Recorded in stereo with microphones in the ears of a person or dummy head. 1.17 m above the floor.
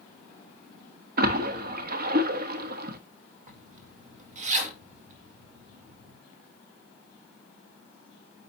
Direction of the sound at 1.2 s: 50° right (ahead or behind).